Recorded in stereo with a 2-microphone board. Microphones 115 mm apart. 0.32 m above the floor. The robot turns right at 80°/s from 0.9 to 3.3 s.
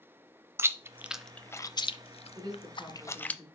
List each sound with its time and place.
0.6 s chewing: 20° right (ahead or behind), 0.5 m; by 3.4 s 10° left (ahead or behind), 0.5 m
2.4 s a woman speaking: 50° right, 3.5 m; by 3.5 s 25° left, 3.5 m